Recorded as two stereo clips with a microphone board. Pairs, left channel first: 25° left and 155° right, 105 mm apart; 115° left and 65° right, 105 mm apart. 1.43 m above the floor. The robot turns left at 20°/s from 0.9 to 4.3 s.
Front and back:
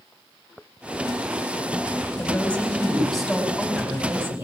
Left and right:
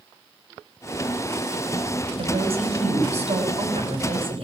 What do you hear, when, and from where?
2.2 s a woman speaking: 50° right, 6.5 m; by 4.5 s 95° right, 6.5 m